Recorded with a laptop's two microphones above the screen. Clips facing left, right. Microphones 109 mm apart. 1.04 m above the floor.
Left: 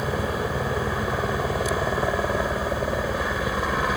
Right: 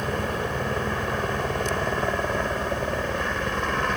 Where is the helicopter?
5° left (ahead or behind).